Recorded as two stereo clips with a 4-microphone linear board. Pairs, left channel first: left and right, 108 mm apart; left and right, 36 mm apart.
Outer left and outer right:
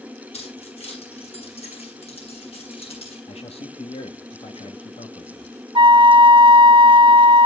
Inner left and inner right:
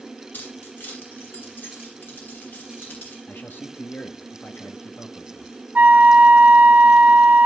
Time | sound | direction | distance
0.3 | keys jangling | 70° left (ahead or behind) | 9 m
3.3 | a man speaking | 65° left (ahead or behind) | 1.5 m
5.8 | a flute | 50° right (ahead or behind) | 0.6 m